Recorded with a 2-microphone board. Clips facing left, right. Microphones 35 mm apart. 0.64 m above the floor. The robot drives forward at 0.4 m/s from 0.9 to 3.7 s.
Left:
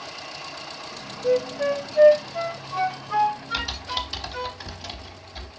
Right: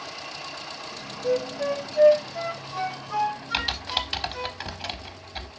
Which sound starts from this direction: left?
A flute, at 1.2 s.